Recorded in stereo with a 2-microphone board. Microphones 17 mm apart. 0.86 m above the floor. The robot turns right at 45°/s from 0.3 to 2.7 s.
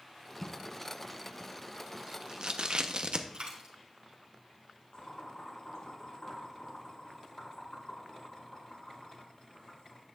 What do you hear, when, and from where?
0.4 s tape being pulled: 30° left (ahead or behind), 0.7 m; by 3.2 s 60° right (ahead or behind), 0.7 m
3.3 s a dropped coin: 65° right (ahead or behind), 2.5 m
4.9 s boiling: 75° left (ahead or behind), 6 m